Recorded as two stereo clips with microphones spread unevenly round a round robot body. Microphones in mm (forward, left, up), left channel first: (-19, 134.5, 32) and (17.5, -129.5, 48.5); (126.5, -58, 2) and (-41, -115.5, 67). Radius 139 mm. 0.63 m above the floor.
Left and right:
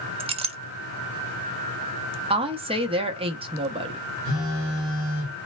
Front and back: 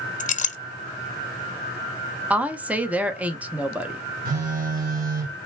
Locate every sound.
0.2 s a clink: 10° right, 0.5 m
2.3 s a woman speaking: 40° right, 0.7 m
4.2 s a phone buzzing: 115° right, 2 m